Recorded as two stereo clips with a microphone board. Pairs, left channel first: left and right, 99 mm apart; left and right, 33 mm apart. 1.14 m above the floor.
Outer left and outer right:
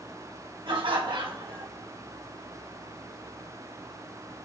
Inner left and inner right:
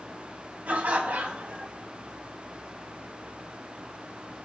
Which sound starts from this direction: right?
Laughter, at 0.7 s.